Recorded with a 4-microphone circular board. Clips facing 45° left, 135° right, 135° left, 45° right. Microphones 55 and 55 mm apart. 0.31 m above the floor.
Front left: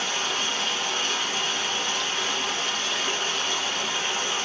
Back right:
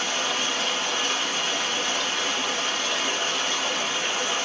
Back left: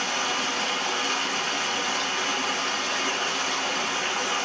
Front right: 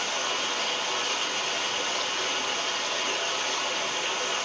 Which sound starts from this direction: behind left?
Running water, at 0.0 s.